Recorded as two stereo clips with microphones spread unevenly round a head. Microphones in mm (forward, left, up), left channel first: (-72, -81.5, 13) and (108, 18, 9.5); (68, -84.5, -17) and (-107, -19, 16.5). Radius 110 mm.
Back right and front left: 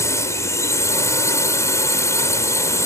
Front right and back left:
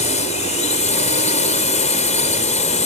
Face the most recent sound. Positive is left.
turn(degrees=-75)